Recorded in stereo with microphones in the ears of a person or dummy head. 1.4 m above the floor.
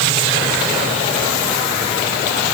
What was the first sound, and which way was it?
Only background noise.